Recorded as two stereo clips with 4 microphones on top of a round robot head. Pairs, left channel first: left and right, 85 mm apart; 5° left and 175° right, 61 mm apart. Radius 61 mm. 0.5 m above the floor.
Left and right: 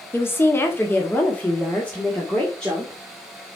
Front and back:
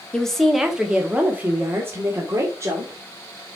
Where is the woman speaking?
75° left, 1.3 m; by 3.6 s 175° left, 2.5 m.